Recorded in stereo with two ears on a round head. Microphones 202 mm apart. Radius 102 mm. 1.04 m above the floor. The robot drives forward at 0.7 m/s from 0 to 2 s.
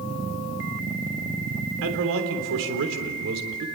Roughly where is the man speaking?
Right.